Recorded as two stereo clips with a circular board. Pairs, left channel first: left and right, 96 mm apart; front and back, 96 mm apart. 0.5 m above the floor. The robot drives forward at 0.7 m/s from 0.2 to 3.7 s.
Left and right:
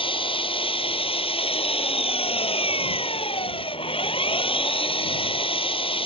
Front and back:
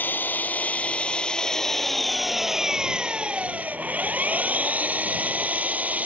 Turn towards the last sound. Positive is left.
turn(degrees=105)